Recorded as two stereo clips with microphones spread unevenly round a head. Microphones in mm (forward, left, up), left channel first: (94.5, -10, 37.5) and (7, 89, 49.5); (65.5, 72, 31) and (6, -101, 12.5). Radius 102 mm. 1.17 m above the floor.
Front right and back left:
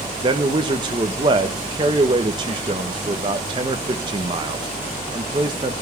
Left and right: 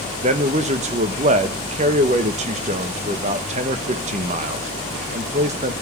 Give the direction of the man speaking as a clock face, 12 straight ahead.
5 o'clock.